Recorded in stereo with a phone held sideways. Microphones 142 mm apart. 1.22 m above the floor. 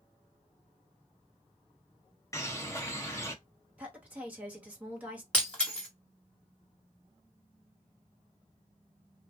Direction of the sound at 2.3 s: 20° left (ahead or behind).